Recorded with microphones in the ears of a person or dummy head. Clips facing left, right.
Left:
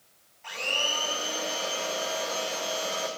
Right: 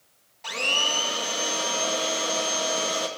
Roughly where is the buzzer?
I don't hear a buzzer.